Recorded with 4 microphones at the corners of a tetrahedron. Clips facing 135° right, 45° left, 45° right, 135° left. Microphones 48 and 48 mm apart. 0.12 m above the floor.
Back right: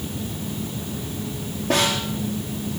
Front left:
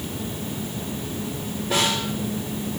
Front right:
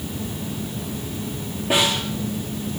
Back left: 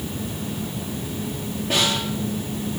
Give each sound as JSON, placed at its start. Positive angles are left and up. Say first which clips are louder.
{"t": 1.7, "sound": "a snare drum", "louder": "back right 2 dB, front right 2 dB", "azimuth_deg": -125, "distance_m": 5.0}